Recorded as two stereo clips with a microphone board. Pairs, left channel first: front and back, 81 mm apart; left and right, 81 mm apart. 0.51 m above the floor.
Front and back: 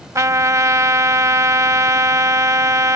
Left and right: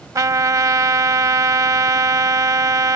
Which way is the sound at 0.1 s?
135° right.